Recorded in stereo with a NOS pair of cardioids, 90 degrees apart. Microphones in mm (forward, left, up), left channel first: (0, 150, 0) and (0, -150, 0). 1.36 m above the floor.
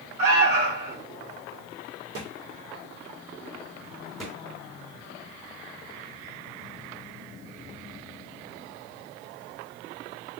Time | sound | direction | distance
0.2 | an alarm | 50° right | 2.5 m
2.1 | a thud | 55° right | 2 m
4.2 | a thud | straight ahead | 2.5 m